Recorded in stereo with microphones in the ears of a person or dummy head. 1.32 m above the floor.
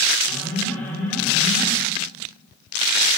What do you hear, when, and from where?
0.3 s an alarm: 5° left (ahead or behind), 6.5 m